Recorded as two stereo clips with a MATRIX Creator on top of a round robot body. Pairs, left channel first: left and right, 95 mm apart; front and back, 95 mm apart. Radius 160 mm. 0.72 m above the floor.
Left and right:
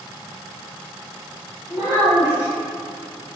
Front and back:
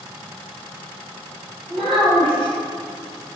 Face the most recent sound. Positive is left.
turn(degrees=-135)